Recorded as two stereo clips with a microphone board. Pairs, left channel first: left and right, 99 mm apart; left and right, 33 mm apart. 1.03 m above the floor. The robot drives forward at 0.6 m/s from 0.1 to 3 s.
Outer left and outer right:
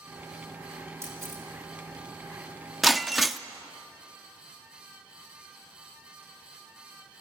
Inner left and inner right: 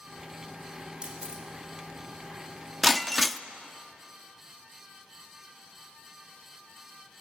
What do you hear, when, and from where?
1.0 s a camera shutter: 30° right (ahead or behind), 3.5 m; by 1.4 s 25° right (ahead or behind), 3.5 m
2.8 s breaking glass: centre (ahead or behind), 0.7 m